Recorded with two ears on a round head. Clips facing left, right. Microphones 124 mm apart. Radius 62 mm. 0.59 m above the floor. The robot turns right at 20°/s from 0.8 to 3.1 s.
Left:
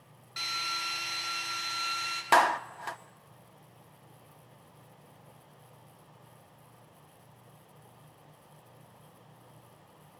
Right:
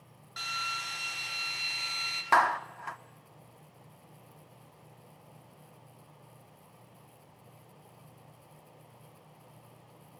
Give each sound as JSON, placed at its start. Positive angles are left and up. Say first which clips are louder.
{"t": 0.4, "sound": "a drill", "louder": "even", "side_deg": 10, "distance_m": 4.5}
{"t": 2.3, "sound": "a clap", "louder": "left 2 dB", "side_deg": 25, "distance_m": 0.7}